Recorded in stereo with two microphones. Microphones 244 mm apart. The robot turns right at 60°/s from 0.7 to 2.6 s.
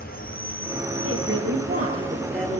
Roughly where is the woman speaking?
Right.